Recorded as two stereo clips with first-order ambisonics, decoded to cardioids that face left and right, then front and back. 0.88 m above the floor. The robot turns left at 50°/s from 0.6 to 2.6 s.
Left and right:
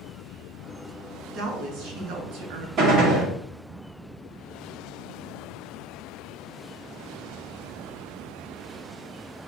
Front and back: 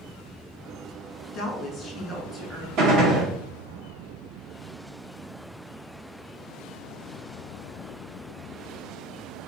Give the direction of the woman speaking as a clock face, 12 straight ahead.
1 o'clock.